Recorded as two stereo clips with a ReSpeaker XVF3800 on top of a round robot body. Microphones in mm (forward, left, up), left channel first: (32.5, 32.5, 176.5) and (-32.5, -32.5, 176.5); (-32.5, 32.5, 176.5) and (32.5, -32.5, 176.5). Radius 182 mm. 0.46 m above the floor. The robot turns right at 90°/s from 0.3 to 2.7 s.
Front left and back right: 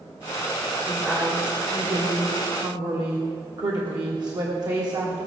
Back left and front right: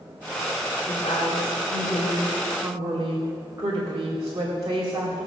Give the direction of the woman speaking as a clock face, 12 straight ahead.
9 o'clock.